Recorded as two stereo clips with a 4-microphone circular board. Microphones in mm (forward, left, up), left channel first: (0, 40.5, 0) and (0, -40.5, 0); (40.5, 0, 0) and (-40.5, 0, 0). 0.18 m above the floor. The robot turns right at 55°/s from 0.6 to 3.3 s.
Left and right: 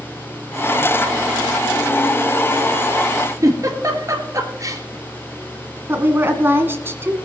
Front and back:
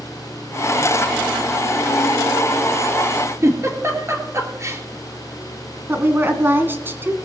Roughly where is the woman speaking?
Behind right.